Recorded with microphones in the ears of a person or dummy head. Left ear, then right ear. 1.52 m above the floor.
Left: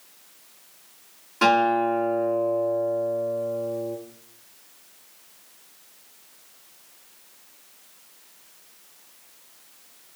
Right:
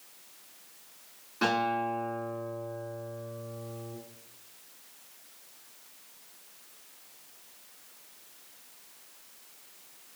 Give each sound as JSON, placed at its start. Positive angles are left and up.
{"t": 1.4, "sound": "a guitar", "side_deg": 30, "distance_m": 6.5}